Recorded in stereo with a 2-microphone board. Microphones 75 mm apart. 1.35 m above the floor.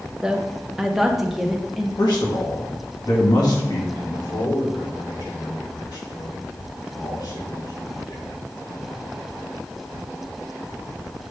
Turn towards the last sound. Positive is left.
turn(degrees=85)